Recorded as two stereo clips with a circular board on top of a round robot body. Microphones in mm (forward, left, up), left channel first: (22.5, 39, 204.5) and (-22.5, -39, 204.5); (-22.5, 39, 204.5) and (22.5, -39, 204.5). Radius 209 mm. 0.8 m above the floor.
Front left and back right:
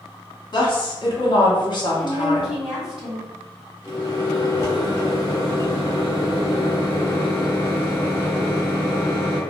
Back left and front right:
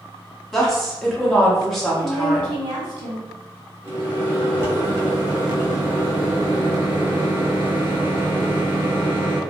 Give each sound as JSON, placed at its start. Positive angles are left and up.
{"t": 0.5, "sound": "a woman speaking", "azimuth_deg": 35, "distance_m": 1.2}
{"t": 2.0, "sound": "a woman speaking", "azimuth_deg": -45, "distance_m": 1.8}
{"t": 3.8, "sound": "a microwave", "azimuth_deg": 0, "distance_m": 1.2}